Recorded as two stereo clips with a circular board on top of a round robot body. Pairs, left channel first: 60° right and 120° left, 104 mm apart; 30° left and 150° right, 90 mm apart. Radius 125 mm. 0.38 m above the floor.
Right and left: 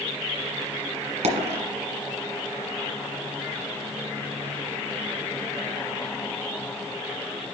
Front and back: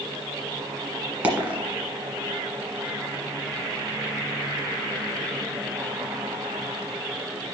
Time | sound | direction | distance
1.2 | a dropped coin | 130° left | 1.6 m